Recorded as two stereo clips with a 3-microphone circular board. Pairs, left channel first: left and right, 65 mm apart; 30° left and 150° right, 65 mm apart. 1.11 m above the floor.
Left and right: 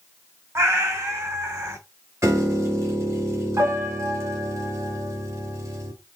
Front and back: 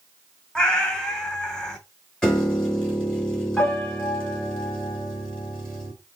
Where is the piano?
45° right, 2.5 m.